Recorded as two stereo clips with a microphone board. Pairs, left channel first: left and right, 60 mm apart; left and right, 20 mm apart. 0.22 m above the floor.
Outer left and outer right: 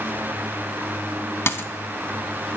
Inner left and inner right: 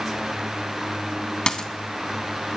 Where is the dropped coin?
45° left (ahead or behind), 0.6 m.